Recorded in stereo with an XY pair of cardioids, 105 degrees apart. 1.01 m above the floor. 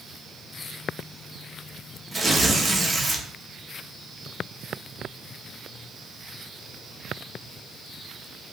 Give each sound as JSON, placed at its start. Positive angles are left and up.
{"t": 2.1, "sound": "tearing paper", "azimuth_deg": -20, "distance_m": 0.8}